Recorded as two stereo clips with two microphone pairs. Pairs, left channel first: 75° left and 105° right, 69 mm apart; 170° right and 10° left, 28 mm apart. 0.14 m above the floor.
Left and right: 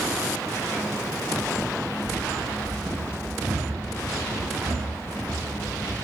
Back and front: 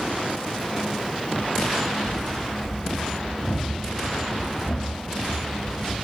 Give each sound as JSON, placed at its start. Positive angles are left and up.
{"t": 2.0, "sound": "running footsteps", "azimuth_deg": -170, "distance_m": 2.0}